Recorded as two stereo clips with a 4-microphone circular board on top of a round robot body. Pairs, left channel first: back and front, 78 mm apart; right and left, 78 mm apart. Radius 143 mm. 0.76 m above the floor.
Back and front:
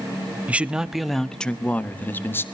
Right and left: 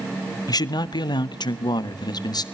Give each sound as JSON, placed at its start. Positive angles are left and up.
{"t": 0.5, "sound": "a man speaking", "azimuth_deg": -70, "distance_m": 1.0}